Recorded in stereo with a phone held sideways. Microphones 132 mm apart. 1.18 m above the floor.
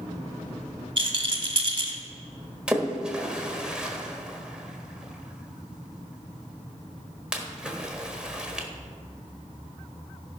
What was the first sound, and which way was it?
A rattle, 35° right (ahead or behind).